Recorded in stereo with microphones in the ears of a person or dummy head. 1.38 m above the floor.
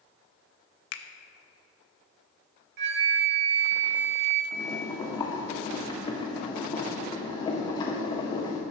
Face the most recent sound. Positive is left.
turn(degrees=20)  # may be behind; listen again after turning